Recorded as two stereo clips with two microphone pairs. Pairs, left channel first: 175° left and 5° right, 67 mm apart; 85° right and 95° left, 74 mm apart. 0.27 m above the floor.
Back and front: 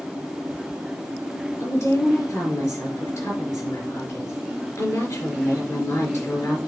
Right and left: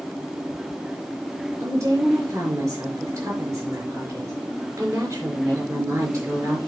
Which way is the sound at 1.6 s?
140° left.